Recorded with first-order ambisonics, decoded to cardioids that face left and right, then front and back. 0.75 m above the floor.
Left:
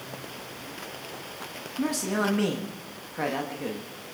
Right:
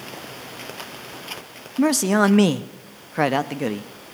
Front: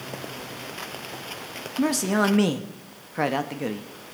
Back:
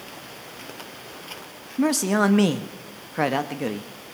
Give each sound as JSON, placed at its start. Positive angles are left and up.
{"t": 1.8, "sound": "a man speaking", "azimuth_deg": -100, "distance_m": 0.7}